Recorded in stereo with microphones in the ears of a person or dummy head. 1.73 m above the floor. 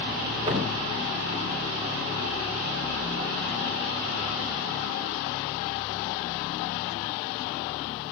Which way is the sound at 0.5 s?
20° right (ahead or behind).